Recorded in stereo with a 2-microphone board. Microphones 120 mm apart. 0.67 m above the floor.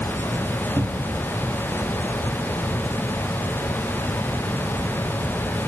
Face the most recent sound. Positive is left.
turn(degrees=-30)  # may be behind; listen again after turning